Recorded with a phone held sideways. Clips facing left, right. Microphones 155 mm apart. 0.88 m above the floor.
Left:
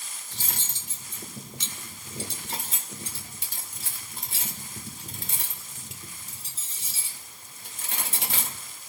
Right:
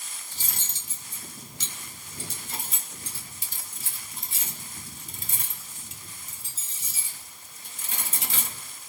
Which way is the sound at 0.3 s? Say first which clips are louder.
Left 4 dB; 65° left (ahead or behind).